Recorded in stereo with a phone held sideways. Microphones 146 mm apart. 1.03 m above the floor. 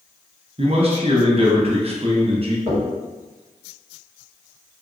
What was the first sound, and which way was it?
A man speaking, 40° right (ahead or behind).